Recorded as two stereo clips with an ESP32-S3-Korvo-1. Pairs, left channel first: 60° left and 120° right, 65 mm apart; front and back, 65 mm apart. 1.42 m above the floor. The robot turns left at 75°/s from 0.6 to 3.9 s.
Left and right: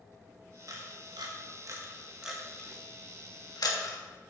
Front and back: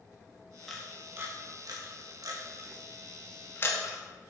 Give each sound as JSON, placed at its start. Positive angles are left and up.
{"t": 0.7, "sound": "a camera shutter", "azimuth_deg": -85, "distance_m": 1.7}